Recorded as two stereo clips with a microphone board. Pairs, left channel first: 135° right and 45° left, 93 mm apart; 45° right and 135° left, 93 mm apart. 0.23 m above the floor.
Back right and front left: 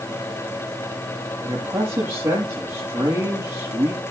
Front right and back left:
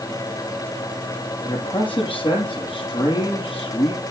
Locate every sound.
1.4 s a man speaking: 20° right, 7 m